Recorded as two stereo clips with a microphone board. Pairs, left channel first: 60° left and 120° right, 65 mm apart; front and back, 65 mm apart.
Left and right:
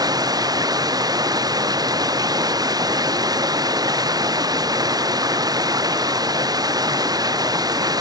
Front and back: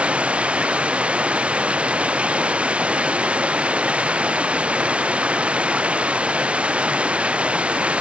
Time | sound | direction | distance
0.0 | running water | 110° right | ?